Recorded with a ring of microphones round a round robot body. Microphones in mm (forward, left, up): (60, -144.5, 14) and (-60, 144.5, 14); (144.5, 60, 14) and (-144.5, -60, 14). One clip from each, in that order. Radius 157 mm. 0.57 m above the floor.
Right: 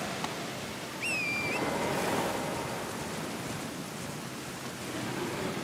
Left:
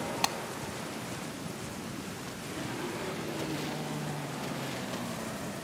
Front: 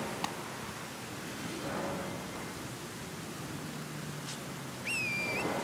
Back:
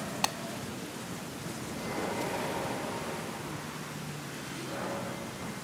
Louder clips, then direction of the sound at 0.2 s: Left 5 dB, back 8 dB; 145° left.